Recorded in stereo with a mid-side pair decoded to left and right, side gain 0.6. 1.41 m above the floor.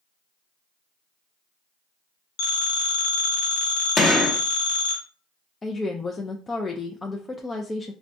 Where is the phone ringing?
65° left, 1.7 m.